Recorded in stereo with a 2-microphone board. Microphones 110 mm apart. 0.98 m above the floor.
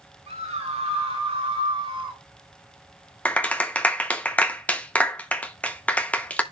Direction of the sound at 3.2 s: 10° left (ahead or behind).